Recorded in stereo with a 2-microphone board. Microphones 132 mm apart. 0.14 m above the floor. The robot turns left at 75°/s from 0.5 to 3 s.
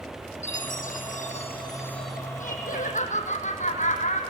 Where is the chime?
120° left, 3.5 m; by 2.2 s 5° right, 3.5 m.